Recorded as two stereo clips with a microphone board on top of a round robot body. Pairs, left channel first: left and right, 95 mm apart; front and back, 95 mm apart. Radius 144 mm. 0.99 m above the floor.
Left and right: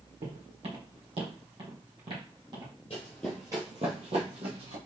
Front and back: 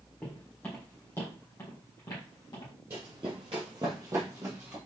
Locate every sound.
0.2 s footsteps: 80° right, 2.5 m; by 2.7 s 45° right, 2.5 m
2.9 s running footsteps: 120° left, 1.1 m; by 4.8 s 105° right, 2.5 m